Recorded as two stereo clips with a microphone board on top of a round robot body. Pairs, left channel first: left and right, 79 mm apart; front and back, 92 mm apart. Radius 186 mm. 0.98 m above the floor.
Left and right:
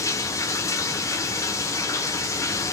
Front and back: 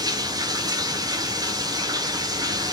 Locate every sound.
0.0 s running water: 135° left, 1.0 m